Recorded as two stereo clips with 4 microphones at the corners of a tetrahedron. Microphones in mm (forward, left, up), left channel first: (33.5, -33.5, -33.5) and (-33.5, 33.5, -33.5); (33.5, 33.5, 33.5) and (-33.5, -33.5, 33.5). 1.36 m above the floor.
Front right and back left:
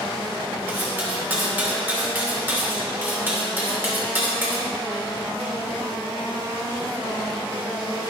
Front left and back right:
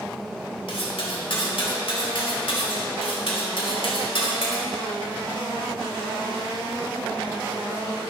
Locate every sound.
0.7 s cutlery clinking: 65° left, 2.5 m